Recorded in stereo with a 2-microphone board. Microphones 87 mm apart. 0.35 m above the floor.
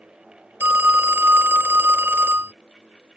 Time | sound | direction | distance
0.6 | a phone ringing | 25° right (ahead or behind) | ?